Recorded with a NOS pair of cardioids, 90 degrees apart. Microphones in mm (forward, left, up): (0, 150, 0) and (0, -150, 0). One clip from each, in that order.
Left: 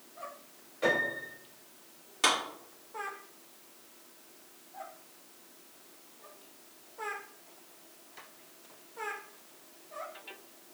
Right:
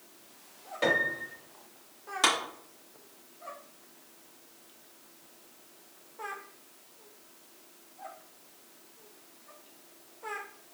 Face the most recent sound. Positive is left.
turn(degrees=-30)